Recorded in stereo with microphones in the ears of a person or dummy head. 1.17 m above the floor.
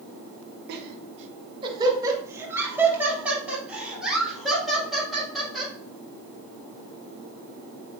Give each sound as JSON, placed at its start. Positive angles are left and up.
{"t": 0.7, "sound": "laughter", "side_deg": -60, "distance_m": 1.0}